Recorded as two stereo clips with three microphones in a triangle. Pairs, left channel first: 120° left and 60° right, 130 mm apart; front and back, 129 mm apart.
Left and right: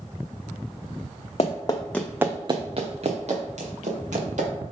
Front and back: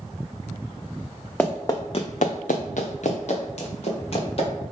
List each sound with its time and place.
1.4 s running footsteps: 80° left, 0.8 m; by 4.5 s 40° right, 2.5 m